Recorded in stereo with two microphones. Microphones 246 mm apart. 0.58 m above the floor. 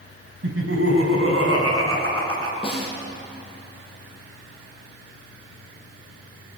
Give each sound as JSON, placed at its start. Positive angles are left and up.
{"t": 0.4, "sound": "laughter", "side_deg": -60, "distance_m": 4.0}
{"t": 2.6, "sound": "a snare drum", "side_deg": 20, "distance_m": 5.5}